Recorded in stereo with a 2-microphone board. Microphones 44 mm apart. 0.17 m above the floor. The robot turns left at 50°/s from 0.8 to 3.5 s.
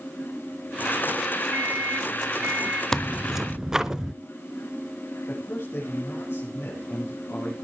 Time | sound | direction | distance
1.5 | a microwave | 80° right | 1.4 m
2.9 | tearing paper | 10° left (ahead or behind) | 0.8 m
5.3 | a man speaking | 75° left (ahead or behind) | 6 m